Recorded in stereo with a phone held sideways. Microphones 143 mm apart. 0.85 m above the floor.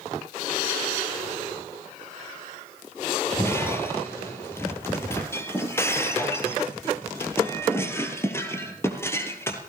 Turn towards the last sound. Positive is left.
turn(degrees=15)  # may be behind; listen again after turning